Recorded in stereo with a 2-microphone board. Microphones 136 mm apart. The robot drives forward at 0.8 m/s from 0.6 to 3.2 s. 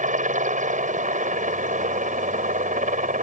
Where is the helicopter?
65° right (ahead or behind); by 3.2 s 70° right (ahead or behind).